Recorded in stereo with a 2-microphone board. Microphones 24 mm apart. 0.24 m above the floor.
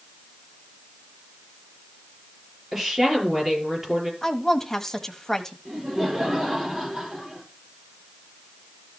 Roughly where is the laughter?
Right.